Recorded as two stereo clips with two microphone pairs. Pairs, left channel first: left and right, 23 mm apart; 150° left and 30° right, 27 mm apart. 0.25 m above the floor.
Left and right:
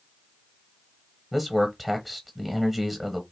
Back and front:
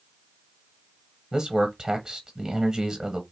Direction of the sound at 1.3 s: 20° right.